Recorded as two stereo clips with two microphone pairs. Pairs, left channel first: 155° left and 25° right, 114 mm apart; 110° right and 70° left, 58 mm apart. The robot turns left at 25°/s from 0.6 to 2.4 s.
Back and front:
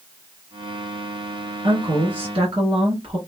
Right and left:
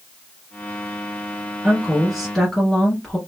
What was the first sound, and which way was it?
A woman speaking, 5° right.